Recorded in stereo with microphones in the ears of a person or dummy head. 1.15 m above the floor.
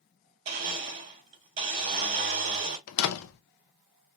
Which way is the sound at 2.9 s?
70° left (ahead or behind).